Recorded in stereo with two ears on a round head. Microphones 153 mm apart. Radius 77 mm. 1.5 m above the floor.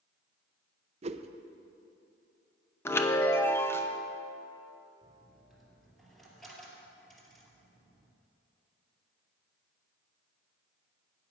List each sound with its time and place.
1.0 s a whoosh: 40° right (ahead or behind), 0.5 m
2.9 s a chime: 15° left (ahead or behind), 0.7 m
5.0 s a dropped coin: centre (ahead or behind), 2.5 m